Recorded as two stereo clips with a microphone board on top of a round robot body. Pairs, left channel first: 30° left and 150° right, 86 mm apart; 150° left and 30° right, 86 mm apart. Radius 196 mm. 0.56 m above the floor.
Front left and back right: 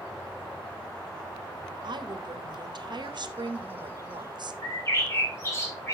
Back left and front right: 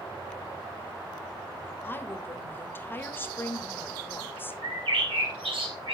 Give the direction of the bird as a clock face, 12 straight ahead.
1 o'clock.